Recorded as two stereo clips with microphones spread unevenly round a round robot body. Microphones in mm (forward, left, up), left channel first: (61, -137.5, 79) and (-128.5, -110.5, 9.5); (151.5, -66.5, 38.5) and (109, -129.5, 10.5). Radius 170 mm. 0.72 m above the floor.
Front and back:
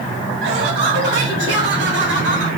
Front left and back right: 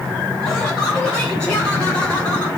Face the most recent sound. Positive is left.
turn(degrees=155)